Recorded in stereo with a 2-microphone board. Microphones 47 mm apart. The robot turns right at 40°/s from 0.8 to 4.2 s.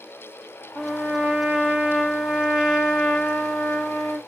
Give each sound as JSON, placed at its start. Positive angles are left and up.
{"t": 0.8, "sound": "a trumpet", "azimuth_deg": -70, "distance_m": 2.5}